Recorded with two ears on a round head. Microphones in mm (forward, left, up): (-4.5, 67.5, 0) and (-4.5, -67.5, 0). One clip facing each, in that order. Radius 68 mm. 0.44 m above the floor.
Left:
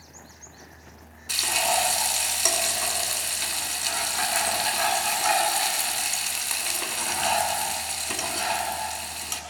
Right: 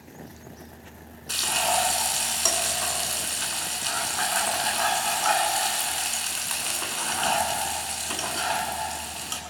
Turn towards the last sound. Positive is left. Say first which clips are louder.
# even
turn(degrees=10)  # may be behind; listen again after turning